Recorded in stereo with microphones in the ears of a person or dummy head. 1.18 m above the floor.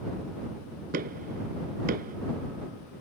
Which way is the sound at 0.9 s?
50° right (ahead or behind).